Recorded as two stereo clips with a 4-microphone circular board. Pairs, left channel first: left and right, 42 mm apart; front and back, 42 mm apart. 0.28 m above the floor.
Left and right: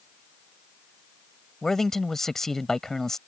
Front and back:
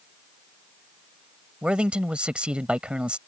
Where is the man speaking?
160° left.